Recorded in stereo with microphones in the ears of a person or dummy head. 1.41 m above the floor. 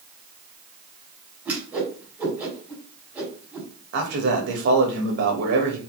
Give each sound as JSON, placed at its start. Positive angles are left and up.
{"t": 1.4, "sound": "a whoosh", "side_deg": -10, "distance_m": 4.5}
{"t": 3.9, "sound": "a man speaking", "side_deg": -55, "distance_m": 2.5}